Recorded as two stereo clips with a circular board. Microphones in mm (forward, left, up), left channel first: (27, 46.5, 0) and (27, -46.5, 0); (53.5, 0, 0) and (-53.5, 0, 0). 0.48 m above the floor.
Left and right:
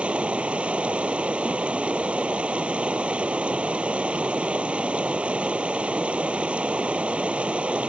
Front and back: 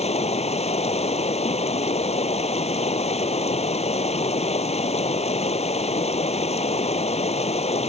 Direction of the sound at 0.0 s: 15° right.